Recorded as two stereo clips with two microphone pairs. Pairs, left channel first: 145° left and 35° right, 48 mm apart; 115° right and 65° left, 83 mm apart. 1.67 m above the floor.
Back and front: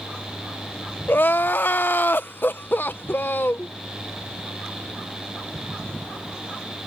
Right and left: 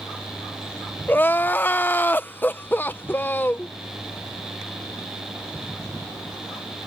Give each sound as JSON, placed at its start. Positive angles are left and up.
{"t": 1.1, "sound": "crying", "azimuth_deg": 180}